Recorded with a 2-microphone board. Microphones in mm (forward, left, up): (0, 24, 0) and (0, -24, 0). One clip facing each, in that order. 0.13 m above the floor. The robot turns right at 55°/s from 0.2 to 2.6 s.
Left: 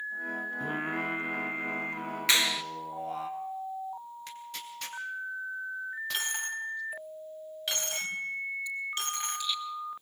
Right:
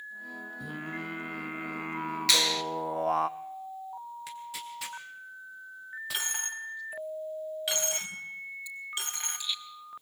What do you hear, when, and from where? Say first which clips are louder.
0.6 s singing: left 4 dB; 140° left, 0.8 m; by 3.3 s 110° right, 0.8 m
2.3 s a clap: left 1 dB; 25° left (ahead or behind), 1.3 m; by 2.6 s 15° left (ahead or behind), 1.3 m
4.3 s tearing paper: right 2 dB; 5° right (ahead or behind), 2 m
6.1 s a dropped coin: even; 5° right (ahead or behind), 3 m